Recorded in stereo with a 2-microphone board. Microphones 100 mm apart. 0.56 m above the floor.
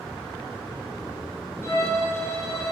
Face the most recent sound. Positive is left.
turn(degrees=30)  # may be behind; listen again after turning